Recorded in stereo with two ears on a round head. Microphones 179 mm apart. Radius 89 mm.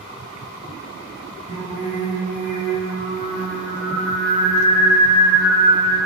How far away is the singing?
About 1.7 m.